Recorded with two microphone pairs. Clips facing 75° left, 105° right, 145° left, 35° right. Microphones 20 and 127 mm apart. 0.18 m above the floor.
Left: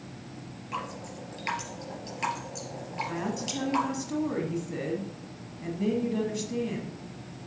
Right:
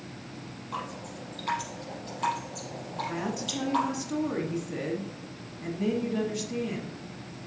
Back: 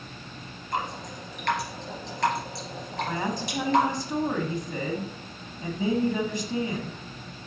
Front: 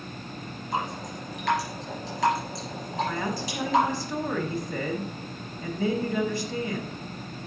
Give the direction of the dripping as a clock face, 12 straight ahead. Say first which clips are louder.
Left 1 dB, front 1 dB; 10 o'clock.